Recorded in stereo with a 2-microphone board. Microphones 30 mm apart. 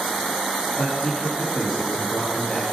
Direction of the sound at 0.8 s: 25° left (ahead or behind).